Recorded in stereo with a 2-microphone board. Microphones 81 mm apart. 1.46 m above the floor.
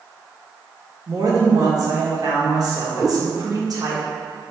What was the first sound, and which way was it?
A woman speaking, 50° right (ahead or behind).